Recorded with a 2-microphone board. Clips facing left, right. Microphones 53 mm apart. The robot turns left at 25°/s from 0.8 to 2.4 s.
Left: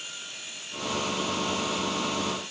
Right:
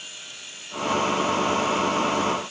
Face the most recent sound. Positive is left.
No sound to turn to.